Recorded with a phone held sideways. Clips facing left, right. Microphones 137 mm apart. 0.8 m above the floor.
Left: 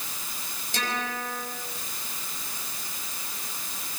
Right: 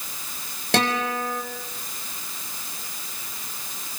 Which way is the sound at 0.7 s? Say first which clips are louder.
Right 9 dB; 80° right.